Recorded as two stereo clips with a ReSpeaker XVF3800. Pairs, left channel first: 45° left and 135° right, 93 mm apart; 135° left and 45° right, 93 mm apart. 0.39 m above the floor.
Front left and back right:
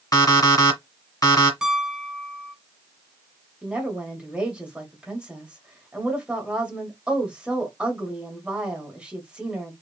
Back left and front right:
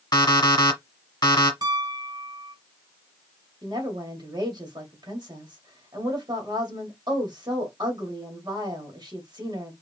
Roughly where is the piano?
Ahead right.